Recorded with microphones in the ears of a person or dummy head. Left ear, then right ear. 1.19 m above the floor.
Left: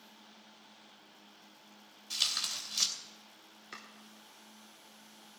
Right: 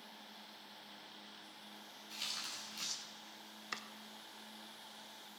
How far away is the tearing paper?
About 3 m.